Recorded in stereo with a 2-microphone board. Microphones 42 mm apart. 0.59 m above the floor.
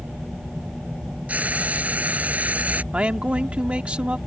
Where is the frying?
35° right (ahead or behind).